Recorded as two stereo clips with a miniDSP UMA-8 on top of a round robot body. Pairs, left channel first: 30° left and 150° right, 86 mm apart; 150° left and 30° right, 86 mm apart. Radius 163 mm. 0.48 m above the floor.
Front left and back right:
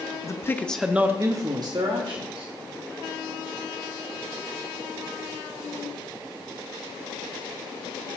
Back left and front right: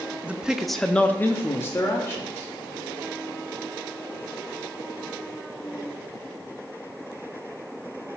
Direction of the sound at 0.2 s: 35° left.